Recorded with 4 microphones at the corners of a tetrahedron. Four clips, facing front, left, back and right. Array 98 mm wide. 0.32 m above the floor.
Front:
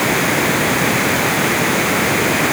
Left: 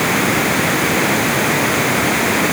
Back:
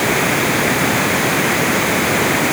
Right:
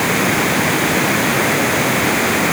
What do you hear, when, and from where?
Only background noise.